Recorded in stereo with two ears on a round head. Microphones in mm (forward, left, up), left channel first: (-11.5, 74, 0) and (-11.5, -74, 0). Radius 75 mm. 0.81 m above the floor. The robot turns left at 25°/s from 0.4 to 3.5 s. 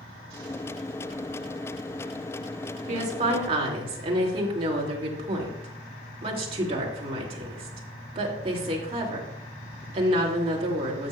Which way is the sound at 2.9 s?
50° right (ahead or behind).